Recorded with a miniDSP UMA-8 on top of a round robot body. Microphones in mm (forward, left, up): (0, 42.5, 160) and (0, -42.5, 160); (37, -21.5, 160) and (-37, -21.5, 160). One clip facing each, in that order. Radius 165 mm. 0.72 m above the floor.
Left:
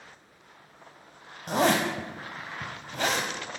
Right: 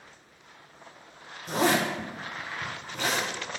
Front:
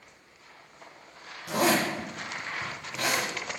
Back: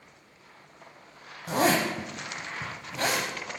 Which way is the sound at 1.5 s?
120° left.